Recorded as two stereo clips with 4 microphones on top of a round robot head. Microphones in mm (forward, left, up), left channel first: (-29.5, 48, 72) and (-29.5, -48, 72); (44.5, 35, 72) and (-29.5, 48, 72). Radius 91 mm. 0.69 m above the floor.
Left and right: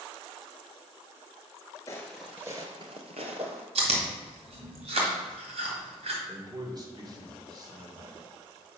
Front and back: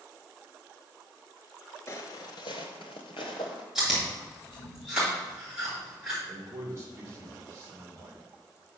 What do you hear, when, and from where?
1.9 s footsteps: 30° left, 0.8 m; by 3.6 s 55° right, 1.3 m
3.8 s chewing: 105° right, 2 m
6.3 s a man speaking: 135° right, 2.5 m